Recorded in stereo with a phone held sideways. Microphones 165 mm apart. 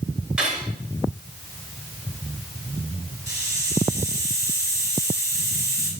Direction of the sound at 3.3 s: 15° right (ahead or behind).